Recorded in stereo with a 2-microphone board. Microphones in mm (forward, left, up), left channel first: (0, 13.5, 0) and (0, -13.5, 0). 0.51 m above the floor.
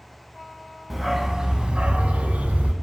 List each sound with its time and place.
0.9 s a dog barking: centre (ahead or behind), 1.1 m; by 2.7 s 80° right, 1.2 m